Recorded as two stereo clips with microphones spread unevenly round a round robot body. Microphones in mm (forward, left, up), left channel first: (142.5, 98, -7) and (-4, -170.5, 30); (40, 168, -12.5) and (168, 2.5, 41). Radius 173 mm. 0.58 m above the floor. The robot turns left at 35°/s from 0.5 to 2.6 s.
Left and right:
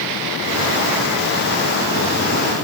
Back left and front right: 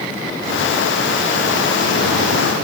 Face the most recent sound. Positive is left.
No sound to turn to.